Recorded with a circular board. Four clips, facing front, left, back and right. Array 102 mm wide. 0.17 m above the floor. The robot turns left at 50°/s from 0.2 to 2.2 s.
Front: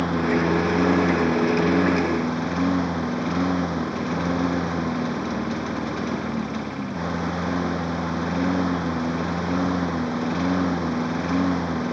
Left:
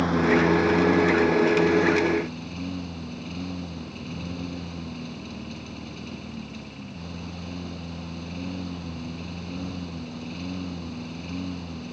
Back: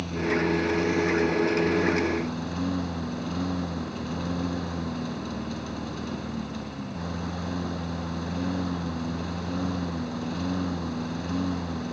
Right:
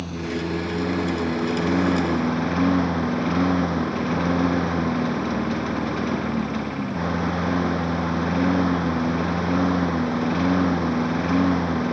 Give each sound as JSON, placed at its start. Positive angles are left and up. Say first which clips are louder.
{"t": 0.0, "sound": "a lawn mower", "louder": "left 7 dB, front 5 dB", "azimuth_deg": 40}